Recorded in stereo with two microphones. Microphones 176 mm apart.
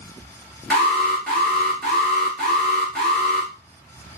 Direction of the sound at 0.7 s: 5° left (ahead or behind).